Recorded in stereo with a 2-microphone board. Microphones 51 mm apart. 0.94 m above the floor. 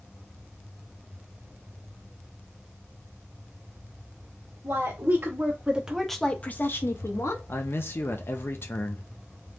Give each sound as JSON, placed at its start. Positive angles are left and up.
{"t": 4.6, "sound": "a woman speaking", "side_deg": -55, "distance_m": 1.6}
{"t": 7.5, "sound": "a man speaking", "side_deg": 50, "distance_m": 0.7}